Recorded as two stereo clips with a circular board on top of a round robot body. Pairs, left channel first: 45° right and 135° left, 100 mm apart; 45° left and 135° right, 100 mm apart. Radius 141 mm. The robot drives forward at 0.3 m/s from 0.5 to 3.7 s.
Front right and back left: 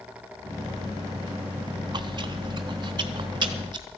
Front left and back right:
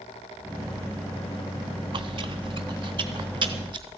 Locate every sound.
1.9 s chewing: 175° right, 0.6 m; by 3.9 s straight behind, 1.2 m